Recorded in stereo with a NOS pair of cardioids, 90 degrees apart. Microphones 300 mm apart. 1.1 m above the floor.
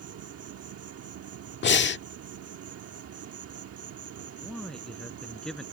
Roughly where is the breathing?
Ahead left.